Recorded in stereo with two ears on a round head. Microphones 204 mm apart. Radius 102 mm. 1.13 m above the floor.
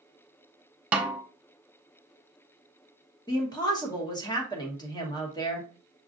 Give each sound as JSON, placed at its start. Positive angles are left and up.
{"t": 0.9, "sound": "a snare drum", "side_deg": -5, "distance_m": 0.6}
{"t": 3.3, "sound": "a woman speaking", "side_deg": 20, "distance_m": 1.0}